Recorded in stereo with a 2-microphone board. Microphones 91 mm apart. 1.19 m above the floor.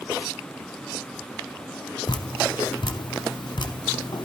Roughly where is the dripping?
Left.